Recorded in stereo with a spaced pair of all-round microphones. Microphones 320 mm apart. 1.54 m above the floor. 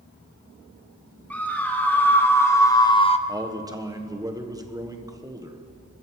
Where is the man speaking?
10° right (ahead or behind), 1.3 m.